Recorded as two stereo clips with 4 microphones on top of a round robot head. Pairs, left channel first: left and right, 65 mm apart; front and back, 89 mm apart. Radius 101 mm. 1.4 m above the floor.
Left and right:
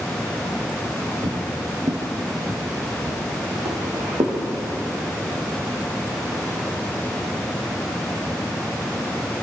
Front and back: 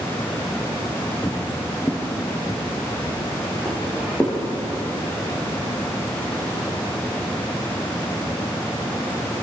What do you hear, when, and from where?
1.2 s footsteps: 70° right, 2.5 m; by 4.4 s 75° right, 4.5 m